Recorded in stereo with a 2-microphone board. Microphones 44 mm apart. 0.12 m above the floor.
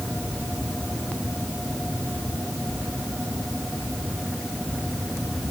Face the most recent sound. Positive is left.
No sound to turn to.